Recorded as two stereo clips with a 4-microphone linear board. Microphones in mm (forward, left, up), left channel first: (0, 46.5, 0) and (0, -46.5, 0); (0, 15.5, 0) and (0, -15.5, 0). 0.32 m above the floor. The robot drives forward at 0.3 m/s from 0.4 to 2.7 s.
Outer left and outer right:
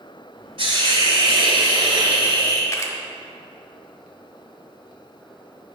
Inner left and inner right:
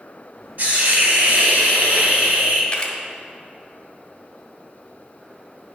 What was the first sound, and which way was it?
A hiss, 60° right (ahead or behind).